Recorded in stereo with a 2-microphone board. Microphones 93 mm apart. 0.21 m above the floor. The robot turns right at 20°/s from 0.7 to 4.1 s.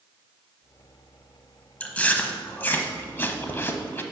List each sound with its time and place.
1.8 s chewing: 15° left (ahead or behind), 0.5 m; by 4.0 s 25° left (ahead or behind), 0.5 m